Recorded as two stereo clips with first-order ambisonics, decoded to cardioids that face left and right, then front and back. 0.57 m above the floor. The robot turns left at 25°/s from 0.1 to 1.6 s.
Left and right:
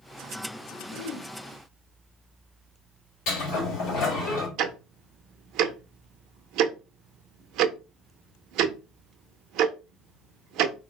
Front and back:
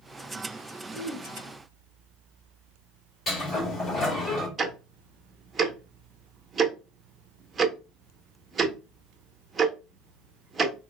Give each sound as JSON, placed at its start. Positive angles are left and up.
{"t": 0.9, "sound": "throat clearing", "azimuth_deg": 90, "distance_m": 1.8}
{"t": 3.3, "sound": "a sliding door", "azimuth_deg": 60, "distance_m": 1.8}
{"t": 4.6, "sound": "ticking", "azimuth_deg": -115, "distance_m": 0.5}